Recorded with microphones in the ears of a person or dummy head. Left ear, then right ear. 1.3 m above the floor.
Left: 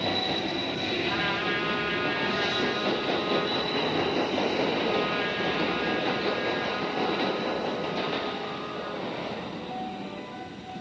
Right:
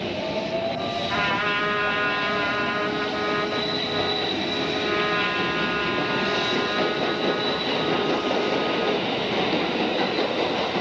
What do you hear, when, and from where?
1.1 s a trumpet: 35° right (ahead or behind), 4 m